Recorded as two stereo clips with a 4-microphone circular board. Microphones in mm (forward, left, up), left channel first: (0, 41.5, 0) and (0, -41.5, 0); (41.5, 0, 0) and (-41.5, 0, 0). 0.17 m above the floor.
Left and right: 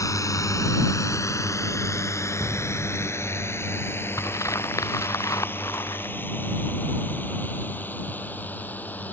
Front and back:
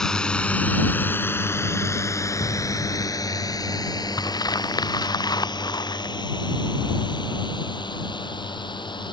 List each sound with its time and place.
0.0 s a drone: 80° left; by 9.1 s 20° left
2.4 s an explosion: 5° right
4.2 s crumpling: 40° left